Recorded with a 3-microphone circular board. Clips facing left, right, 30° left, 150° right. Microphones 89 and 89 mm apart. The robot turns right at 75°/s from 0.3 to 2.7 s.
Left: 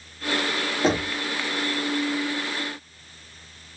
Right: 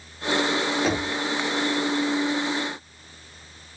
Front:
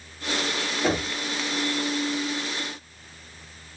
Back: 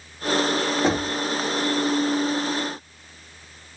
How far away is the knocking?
About 2.5 m.